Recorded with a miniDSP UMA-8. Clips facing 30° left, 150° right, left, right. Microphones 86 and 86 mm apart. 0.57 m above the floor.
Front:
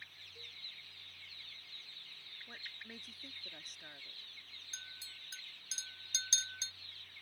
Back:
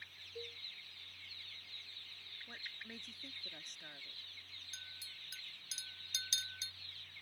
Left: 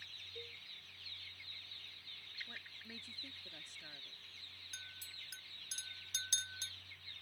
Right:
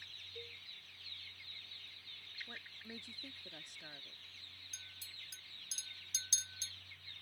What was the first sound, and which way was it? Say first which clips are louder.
A cowbell: back 11 dB, even; straight behind.